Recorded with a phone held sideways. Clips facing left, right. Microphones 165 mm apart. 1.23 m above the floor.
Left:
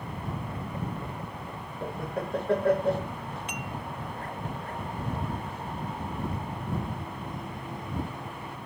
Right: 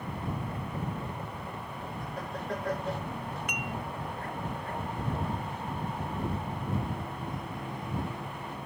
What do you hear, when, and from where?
1.8 s laughter: 60° left (ahead or behind)
3.5 s dishes clattering: 30° left (ahead or behind)